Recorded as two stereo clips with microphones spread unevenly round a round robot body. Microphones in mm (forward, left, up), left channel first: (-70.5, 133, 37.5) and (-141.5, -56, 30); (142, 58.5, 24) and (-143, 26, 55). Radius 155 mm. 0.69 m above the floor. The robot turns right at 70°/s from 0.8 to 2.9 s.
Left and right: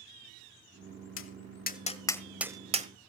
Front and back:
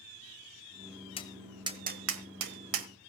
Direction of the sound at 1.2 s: 80° left.